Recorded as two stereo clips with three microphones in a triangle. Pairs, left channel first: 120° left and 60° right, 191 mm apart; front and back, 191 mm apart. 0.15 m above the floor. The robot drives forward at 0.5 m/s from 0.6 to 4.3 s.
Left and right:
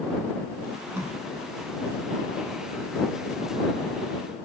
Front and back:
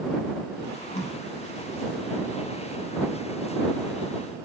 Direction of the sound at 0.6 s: 5° left.